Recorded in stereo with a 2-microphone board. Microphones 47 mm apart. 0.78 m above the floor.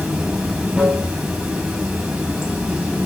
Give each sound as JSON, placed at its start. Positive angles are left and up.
{"t": 0.0, "sound": "running water", "side_deg": -10, "distance_m": 5.0}